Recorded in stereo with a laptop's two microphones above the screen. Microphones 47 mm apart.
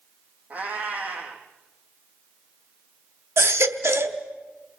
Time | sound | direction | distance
0.5 | a cat meowing | 35° right (ahead or behind) | 3.5 m
3.4 | a baby crying | 70° right (ahead or behind) | 1.0 m